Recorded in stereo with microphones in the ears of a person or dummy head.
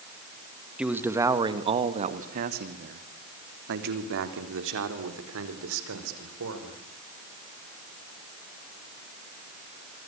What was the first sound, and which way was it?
A man speaking, 5° right (ahead or behind).